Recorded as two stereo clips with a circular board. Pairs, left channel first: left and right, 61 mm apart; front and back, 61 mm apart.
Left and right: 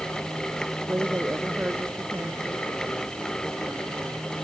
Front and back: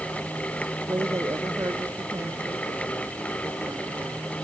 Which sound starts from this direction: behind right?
A woman speaking, at 0.9 s.